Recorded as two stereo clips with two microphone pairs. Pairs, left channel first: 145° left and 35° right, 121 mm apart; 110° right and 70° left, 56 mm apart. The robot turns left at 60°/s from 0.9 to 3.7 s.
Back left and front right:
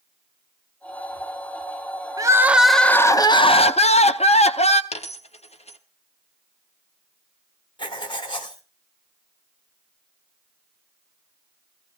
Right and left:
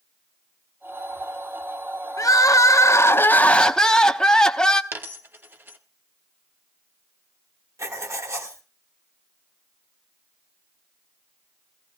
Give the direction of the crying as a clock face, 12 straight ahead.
3 o'clock.